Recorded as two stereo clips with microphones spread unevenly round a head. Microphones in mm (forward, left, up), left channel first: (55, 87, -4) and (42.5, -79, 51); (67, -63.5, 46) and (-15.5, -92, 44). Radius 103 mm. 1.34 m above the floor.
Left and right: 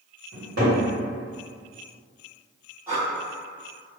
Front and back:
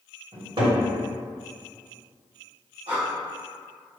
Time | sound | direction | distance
0.3 | a cupboard door | 135° right | 1.8 m
2.9 | breathing | 165° right | 1.0 m